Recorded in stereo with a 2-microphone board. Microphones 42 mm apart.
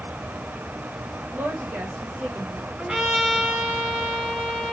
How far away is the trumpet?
About 3 m.